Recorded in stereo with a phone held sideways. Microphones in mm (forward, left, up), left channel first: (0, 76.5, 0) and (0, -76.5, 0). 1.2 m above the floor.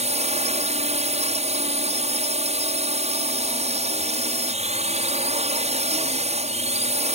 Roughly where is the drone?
Right.